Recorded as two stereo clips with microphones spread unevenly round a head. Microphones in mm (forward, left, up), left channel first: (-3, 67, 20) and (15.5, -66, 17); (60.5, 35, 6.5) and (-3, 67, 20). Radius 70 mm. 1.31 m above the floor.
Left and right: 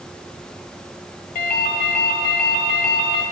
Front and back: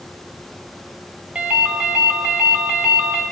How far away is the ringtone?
About 1.3 m.